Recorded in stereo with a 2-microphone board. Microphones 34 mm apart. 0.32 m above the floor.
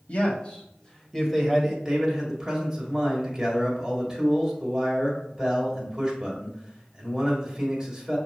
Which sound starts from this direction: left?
A man speaking, at 0.1 s.